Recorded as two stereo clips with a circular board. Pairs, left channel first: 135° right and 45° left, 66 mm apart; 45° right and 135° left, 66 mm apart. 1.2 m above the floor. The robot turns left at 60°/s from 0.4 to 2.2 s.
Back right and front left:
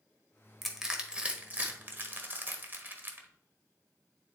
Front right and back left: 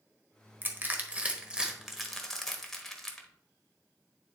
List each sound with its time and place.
0.6 s crushing: 135° left, 1.0 m; by 3.3 s 35° left, 1.0 m